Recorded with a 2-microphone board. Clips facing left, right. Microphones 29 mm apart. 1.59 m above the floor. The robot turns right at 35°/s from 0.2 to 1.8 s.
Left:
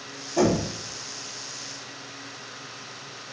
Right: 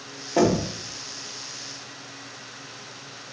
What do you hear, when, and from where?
0.4 s knocking: 65° right (ahead or behind), 0.7 m; by 0.7 s 55° right (ahead or behind), 0.7 m